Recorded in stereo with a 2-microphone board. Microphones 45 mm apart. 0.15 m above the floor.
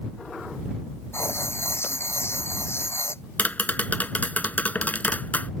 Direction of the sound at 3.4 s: 40° left (ahead or behind).